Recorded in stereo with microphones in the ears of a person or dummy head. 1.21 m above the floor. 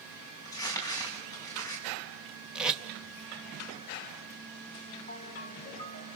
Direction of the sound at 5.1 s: 30° left (ahead or behind).